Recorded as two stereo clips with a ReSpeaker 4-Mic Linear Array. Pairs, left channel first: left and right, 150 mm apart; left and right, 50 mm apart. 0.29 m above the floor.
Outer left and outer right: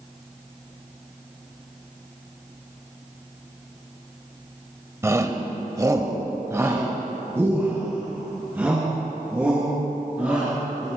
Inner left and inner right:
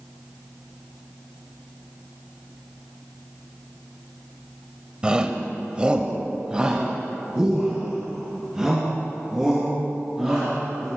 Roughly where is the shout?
Centre.